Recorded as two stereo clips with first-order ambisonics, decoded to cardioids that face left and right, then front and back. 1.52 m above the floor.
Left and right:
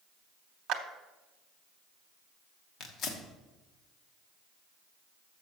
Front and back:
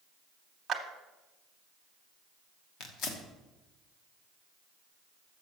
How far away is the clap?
About 0.9 m.